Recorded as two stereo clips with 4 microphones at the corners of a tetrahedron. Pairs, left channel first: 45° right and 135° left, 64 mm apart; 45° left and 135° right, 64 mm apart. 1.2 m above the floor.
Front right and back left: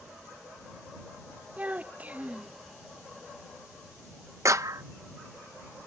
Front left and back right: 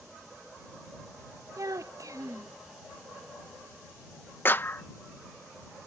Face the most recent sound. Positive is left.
turn(degrees=100)